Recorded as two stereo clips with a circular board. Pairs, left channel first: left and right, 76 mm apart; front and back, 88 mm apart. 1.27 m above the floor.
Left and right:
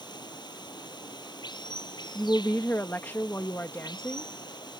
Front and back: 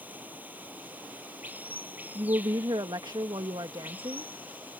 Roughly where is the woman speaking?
Behind left.